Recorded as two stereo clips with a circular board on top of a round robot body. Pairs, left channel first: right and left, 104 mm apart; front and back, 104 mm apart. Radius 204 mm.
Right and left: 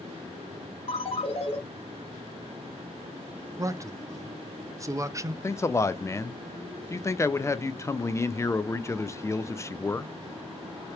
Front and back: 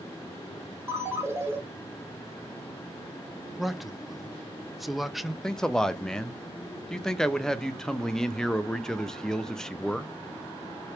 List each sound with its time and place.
0.9 s a ringtone: 115° right, 1.3 m
3.6 s a man speaking: 90° left, 0.6 m
5.4 s a man speaking: 80° right, 0.6 m